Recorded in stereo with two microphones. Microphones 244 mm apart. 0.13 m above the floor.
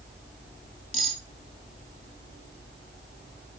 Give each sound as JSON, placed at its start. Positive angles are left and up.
{"t": 0.9, "sound": "cutlery clinking", "side_deg": 70, "distance_m": 1.7}